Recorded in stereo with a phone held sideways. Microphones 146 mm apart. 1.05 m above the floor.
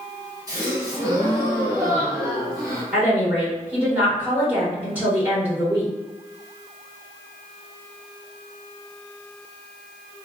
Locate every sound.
0.5 s a gasp: 25° right (ahead or behind), 1.3 m
2.9 s a woman speaking: 10° right (ahead or behind), 1.5 m